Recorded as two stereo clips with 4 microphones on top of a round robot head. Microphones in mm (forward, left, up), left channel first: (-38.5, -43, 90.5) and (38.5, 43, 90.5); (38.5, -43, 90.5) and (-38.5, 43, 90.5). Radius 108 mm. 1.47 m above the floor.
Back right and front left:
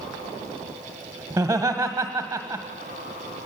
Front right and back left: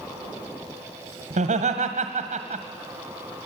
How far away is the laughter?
About 1.6 m.